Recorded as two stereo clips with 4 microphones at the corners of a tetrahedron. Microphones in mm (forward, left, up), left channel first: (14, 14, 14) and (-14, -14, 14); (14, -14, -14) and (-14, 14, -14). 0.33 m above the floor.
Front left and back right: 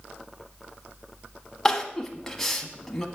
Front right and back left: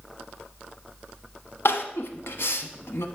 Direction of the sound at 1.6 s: 35° right.